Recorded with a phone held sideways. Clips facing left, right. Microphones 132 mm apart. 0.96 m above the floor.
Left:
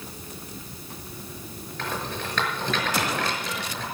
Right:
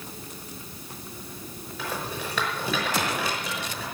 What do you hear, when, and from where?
1.8 s a rattle: 10° right (ahead or behind), 6 m